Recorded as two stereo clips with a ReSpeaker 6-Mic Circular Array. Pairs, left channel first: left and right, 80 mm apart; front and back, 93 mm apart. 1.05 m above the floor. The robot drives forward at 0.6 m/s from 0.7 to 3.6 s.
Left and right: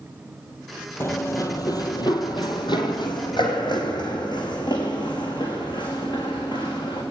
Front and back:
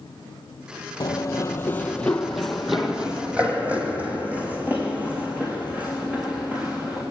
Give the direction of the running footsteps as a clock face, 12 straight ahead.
11 o'clock.